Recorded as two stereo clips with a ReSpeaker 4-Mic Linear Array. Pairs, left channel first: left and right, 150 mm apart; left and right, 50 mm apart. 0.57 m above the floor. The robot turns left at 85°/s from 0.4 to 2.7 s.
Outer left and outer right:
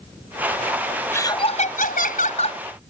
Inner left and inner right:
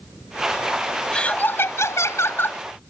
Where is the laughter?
165° left; by 2.6 s 40° left.